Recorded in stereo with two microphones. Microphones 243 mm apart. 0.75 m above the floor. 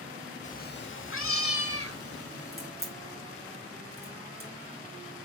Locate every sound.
0.4 s a cat meowing: 30° left (ahead or behind), 0.5 m; by 2.7 s 75° left (ahead or behind), 1.9 m
2.5 s a crack: 65° right (ahead or behind), 3.5 m